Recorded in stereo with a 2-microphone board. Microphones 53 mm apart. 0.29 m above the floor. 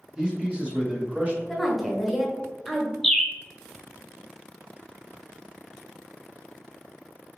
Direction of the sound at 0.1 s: 15° right (ahead or behind).